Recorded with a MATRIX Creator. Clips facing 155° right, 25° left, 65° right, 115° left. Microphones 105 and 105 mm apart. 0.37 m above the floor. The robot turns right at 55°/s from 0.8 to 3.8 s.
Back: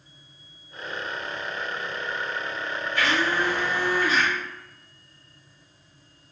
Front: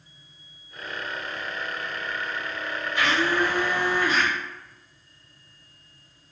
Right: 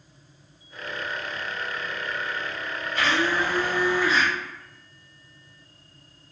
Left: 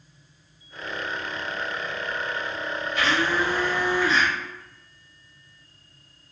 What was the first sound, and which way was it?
A blender, 45° right.